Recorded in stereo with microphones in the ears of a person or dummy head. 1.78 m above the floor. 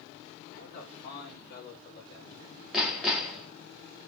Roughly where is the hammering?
Centre.